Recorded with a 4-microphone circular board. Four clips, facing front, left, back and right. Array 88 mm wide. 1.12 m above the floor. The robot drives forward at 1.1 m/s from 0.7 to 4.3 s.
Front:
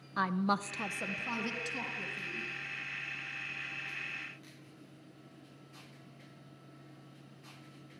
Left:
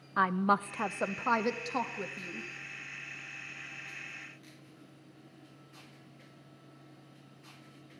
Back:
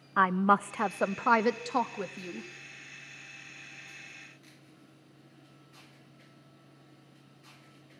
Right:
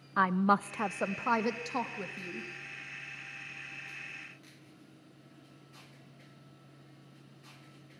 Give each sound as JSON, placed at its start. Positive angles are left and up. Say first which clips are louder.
{"t": 0.2, "sound": "a woman speaking", "louder": "right 1 dB, back 7 dB", "azimuth_deg": -170, "distance_m": 0.6}